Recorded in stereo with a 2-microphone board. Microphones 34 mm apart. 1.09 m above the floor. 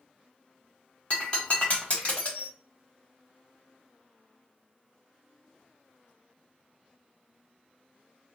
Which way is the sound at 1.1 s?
35° left (ahead or behind).